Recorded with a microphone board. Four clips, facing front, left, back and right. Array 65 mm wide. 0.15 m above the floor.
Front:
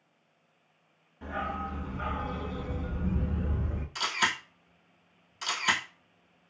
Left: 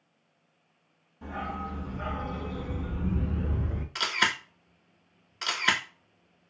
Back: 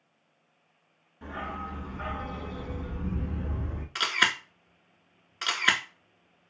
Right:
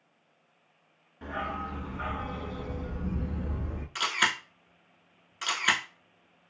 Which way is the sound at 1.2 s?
90° right.